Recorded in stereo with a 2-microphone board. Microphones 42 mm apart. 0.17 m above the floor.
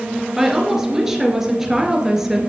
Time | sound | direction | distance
0.4 | a woman speaking | 10° right (ahead or behind) | 2.5 m